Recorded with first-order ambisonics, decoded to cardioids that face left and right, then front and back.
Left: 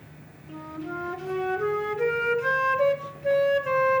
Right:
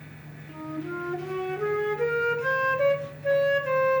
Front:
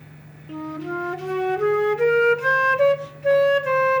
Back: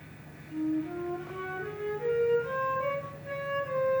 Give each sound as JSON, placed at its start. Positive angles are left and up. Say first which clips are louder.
{"t": 0.5, "sound": "a flute", "louder": "right 1 dB, front 3 dB", "azimuth_deg": 0, "distance_m": 0.9}